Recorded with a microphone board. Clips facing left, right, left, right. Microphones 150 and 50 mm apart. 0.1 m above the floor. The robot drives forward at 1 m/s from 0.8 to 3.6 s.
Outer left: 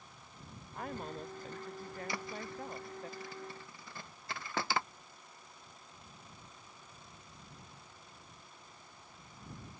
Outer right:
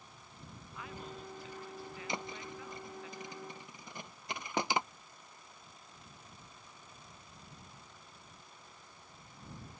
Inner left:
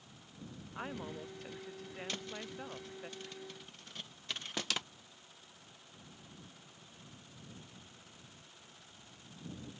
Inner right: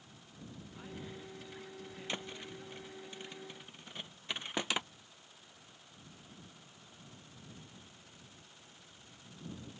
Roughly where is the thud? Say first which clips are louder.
Outer right 2 dB, inner right 3 dB; centre.